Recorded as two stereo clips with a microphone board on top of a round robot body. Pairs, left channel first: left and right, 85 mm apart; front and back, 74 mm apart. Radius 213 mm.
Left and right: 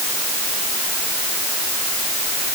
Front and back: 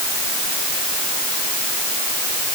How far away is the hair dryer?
No hair dryer in this recording.